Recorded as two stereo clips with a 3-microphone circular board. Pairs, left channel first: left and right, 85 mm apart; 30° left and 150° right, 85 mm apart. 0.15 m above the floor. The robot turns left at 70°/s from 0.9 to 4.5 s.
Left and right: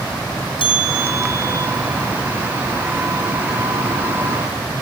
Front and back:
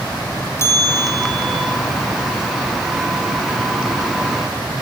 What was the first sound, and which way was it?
A bell, 85° left.